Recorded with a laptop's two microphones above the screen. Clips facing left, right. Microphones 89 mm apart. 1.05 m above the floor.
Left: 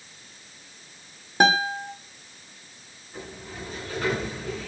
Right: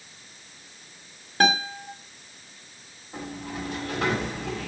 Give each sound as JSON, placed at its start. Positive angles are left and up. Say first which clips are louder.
{"t": 1.4, "sound": "a guitar", "louder": "left 3 dB", "side_deg": 20, "distance_m": 2.0}
{"t": 3.1, "sound": "a sliding door", "louder": "right 5 dB", "side_deg": -85, "distance_m": 5.5}